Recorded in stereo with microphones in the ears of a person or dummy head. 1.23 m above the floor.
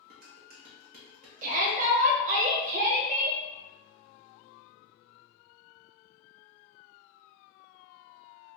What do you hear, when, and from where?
0.1 s dishes clattering: 55° right (ahead or behind), 0.8 m
1.4 s a shout: 45° right (ahead or behind), 0.7 m